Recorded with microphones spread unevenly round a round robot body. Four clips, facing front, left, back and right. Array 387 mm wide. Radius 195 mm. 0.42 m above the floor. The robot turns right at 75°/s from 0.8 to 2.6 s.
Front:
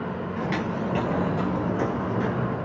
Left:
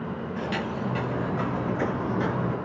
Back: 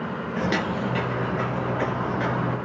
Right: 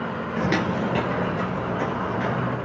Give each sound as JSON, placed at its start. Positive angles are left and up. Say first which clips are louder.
{"t": 0.4, "sound": "footsteps", "louder": "right 7 dB, back 3 dB", "azimuth_deg": -125, "distance_m": 0.6}